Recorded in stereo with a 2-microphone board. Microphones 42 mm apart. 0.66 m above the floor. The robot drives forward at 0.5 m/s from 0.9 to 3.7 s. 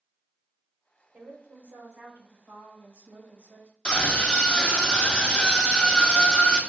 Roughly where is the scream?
Centre.